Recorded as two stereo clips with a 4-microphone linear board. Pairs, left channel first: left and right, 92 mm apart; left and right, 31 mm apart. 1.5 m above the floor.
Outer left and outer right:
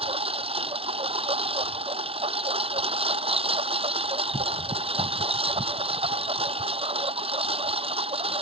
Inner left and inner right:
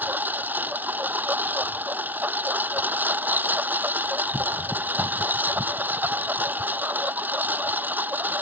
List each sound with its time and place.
0.0 s a lawn mower: 80° right